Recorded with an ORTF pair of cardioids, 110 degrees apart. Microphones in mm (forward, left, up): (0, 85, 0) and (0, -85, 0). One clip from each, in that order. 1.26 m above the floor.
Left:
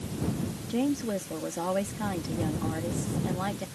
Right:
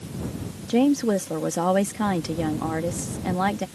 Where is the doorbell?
No doorbell in this recording.